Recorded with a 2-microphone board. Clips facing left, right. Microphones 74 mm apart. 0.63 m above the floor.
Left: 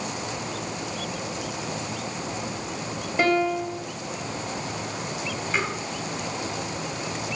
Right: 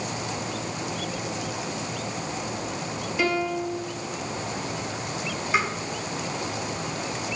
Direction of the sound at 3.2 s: 45° left (ahead or behind).